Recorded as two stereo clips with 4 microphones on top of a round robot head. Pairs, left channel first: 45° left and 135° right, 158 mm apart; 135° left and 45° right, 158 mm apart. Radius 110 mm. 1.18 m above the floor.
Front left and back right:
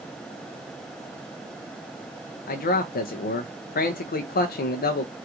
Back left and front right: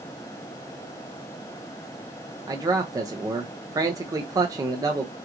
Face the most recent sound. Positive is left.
turn(degrees=25)